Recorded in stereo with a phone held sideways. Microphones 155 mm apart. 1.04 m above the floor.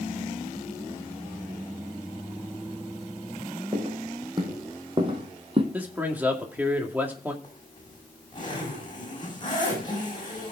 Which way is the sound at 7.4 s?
30° left (ahead or behind).